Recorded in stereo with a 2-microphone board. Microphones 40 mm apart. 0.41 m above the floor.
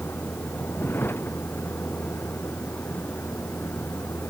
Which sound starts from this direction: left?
A vehicle, at 0.0 s.